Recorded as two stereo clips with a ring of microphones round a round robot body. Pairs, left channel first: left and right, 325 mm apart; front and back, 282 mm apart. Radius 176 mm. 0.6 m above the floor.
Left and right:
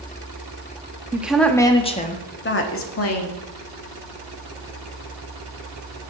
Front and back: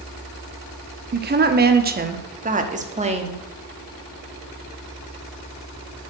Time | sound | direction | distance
1.1 | a woman speaking | 170° right | 1.0 m